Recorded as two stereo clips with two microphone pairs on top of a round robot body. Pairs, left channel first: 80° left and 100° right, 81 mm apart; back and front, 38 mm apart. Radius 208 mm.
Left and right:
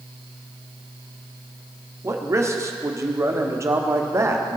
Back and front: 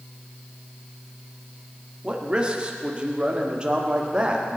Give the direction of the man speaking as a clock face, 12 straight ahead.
2 o'clock.